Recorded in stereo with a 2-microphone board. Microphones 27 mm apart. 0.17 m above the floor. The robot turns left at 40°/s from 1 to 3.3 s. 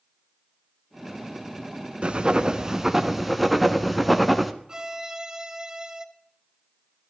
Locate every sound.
2.0 s writing: 125° right, 1.0 m; by 4.5 s 175° right, 1.0 m
4.7 s a violin: 25° right (ahead or behind), 0.9 m